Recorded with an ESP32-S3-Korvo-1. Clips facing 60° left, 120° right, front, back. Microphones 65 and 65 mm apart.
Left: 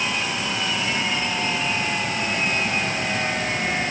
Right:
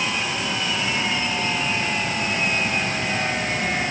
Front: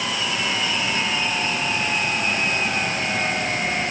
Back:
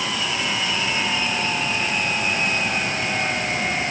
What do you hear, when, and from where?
Only background noise.